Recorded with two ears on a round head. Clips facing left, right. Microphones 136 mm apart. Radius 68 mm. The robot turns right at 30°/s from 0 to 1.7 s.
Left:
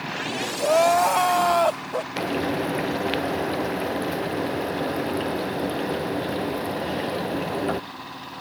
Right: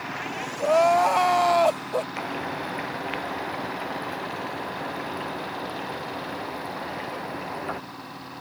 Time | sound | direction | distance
0.6 | crying | 5° left (ahead or behind) | ?
2.2 | frying | 40° left (ahead or behind) | ?